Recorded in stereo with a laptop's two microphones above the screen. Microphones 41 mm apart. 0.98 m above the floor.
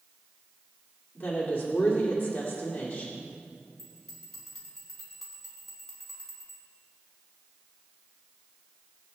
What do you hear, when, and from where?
1.1 s a woman speaking: 30° left (ahead or behind), 2.5 m
3.8 s a bell: 5° left (ahead or behind), 3.5 m